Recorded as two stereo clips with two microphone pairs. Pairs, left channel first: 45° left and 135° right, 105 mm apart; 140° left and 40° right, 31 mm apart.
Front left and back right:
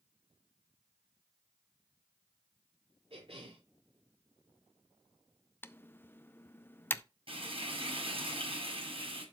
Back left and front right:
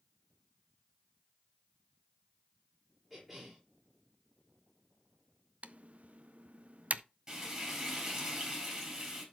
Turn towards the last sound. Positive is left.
turn(degrees=-110)